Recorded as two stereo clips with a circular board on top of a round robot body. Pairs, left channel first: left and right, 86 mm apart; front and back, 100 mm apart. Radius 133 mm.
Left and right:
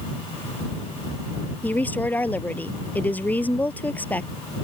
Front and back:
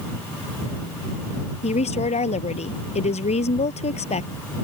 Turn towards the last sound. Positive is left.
turn(degrees=15)